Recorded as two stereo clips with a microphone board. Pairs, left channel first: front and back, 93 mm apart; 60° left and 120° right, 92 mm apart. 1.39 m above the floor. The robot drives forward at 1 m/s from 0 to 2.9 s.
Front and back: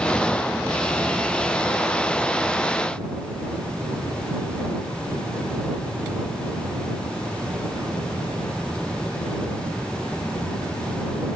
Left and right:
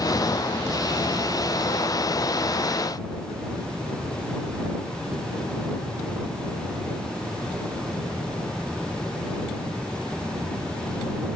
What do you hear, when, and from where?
Only background noise.